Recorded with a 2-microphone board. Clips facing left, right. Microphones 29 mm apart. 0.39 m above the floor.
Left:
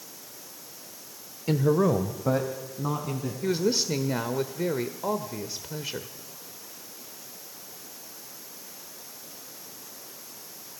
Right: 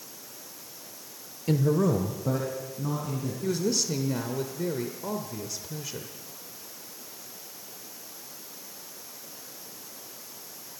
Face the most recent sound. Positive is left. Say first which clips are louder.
# left 3 dB
turn(degrees=35)  # may be behind; listen again after turning